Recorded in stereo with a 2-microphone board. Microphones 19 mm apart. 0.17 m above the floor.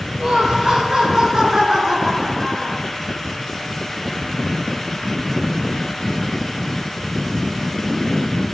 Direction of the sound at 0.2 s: 40° right (ahead or behind).